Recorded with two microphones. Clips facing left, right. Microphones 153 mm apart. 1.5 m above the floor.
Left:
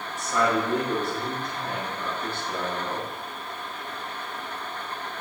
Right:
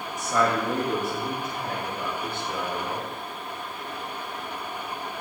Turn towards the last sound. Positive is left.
turn(degrees=-40)  # may be behind; listen again after turning